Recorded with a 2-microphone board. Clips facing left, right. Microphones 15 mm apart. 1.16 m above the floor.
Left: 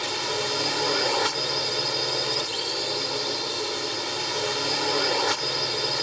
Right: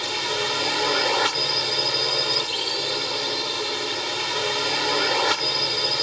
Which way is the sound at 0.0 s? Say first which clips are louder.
Right 2 dB; 25° right (ahead or behind).